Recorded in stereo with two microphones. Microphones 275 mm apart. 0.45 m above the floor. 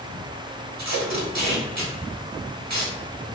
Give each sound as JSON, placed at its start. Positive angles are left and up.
{"t": 0.8, "sound": "tape being pulled", "side_deg": -75, "distance_m": 0.7}